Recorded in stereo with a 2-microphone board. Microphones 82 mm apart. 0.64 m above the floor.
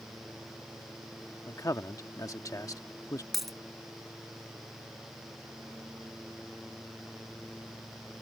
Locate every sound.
1.5 s a man speaking: 45° left (ahead or behind)
3.3 s a dropped coin: centre (ahead or behind)